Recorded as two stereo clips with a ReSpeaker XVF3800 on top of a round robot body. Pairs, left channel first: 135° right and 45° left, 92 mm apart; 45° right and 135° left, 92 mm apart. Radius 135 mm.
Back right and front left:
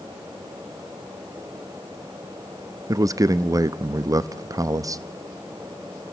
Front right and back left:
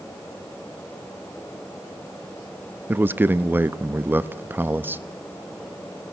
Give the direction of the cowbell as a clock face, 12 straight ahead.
I don't hear a cowbell.